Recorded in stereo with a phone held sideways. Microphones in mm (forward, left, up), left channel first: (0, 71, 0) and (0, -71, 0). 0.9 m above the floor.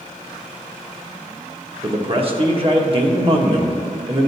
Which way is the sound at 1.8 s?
40° right (ahead or behind).